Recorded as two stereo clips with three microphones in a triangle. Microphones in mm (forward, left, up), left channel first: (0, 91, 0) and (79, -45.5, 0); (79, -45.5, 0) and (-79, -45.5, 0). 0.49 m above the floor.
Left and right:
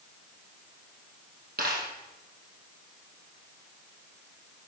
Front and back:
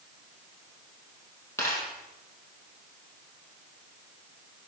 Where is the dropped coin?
75° right, 4.5 m.